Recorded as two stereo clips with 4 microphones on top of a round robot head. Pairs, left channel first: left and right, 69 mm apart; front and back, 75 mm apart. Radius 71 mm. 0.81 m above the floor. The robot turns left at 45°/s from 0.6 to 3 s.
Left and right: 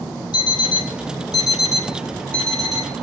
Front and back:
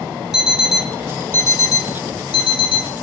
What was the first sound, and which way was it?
An alarm clock, 95° left.